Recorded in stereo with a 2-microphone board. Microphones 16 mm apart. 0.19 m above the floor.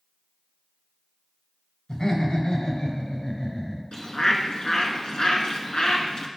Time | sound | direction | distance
1.9 | laughter | 45° left (ahead or behind) | 3 m
3.9 | a bird | 55° left (ahead or behind) | 1.2 m